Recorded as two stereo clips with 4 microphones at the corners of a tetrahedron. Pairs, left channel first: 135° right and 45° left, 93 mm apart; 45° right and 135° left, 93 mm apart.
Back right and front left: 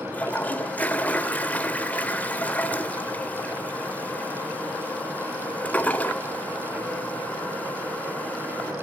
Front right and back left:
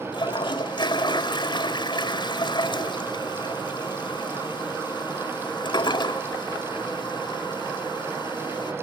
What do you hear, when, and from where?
0.1 s a toilet flushing: 65° right, 1.5 m